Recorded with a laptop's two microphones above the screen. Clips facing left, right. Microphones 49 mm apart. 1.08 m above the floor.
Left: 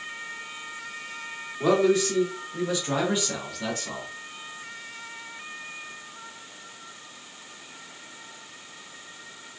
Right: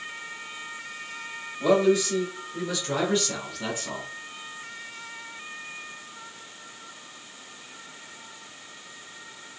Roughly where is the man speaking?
Left.